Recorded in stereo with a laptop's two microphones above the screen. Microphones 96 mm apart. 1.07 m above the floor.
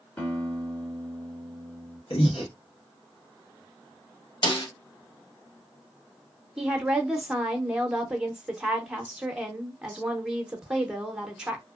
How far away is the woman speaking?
About 0.6 m.